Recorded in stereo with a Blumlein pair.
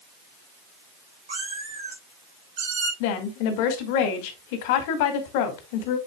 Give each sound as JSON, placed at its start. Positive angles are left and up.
{"t": 1.3, "sound": "a cat meowing", "azimuth_deg": -65, "distance_m": 4.5}
{"t": 3.0, "sound": "a woman speaking", "azimuth_deg": 50, "distance_m": 2.0}